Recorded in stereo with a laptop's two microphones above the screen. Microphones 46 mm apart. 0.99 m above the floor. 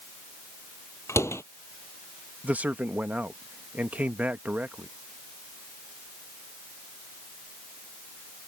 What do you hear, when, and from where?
1.1 s a door slam: 85° left
2.4 s a man speaking: 35° right (ahead or behind)